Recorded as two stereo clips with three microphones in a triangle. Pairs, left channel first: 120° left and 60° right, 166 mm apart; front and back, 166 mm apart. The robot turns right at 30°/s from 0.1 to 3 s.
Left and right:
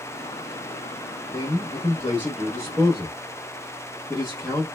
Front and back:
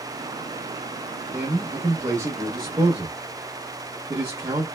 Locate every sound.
1.3 s a man speaking: 110° left, 0.8 m; by 4.7 s 160° left, 0.8 m